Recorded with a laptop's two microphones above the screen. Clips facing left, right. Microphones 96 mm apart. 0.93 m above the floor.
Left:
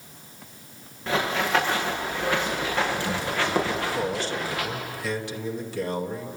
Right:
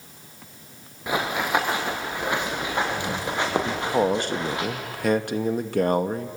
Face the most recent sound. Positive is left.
turn(degrees=-50)  # may be behind; listen again after turning